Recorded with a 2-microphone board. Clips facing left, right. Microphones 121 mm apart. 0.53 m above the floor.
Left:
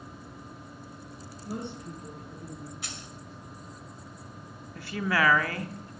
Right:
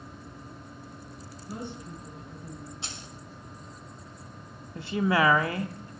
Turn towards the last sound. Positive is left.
turn(degrees=-20)  # may be behind; listen again after turning